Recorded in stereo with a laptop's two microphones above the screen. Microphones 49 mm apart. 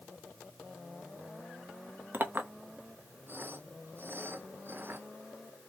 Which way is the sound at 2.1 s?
40° right (ahead or behind).